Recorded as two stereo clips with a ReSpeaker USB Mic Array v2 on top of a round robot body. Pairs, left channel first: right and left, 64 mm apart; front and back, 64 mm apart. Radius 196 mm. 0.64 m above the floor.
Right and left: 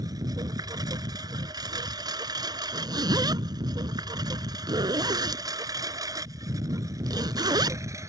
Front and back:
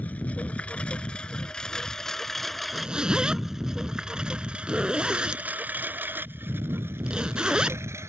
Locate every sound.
0.0 s a lawn mower: 65° left; by 8.1 s 130° left
2.7 s a zipper: 100° left